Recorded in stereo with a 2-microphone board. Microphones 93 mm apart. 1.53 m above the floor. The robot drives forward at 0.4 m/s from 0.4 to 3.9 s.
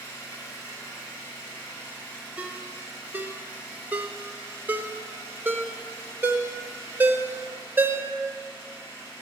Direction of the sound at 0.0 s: 35° left (ahead or behind).